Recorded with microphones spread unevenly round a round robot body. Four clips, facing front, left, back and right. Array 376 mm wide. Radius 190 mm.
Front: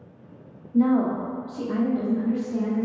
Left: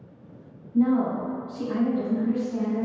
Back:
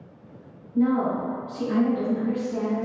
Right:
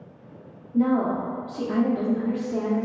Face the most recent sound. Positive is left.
turn(degrees=-115)